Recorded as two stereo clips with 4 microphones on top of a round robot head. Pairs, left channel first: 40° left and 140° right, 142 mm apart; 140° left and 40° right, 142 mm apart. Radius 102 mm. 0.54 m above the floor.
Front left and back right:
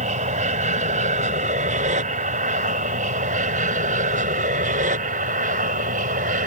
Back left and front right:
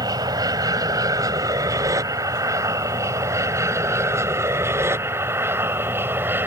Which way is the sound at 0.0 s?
105° right.